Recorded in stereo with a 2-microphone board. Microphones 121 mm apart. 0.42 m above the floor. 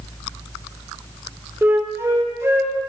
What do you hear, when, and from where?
1.6 s a flute: 20° right (ahead or behind), 0.9 m